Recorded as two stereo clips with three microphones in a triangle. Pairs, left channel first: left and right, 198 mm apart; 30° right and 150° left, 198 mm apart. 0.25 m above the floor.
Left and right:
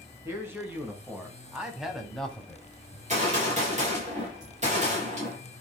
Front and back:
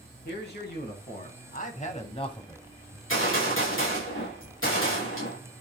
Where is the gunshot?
35° right, 5 m.